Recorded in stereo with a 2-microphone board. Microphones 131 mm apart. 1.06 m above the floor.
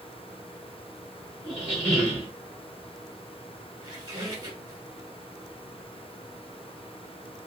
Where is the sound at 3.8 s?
30° right (ahead or behind), 1.6 m.